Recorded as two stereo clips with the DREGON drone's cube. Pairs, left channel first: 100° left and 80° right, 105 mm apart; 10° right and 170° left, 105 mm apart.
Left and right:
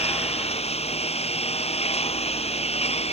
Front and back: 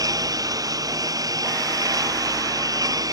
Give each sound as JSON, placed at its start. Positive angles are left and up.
{"t": 0.0, "sound": "a lawn mower", "azimuth_deg": 115}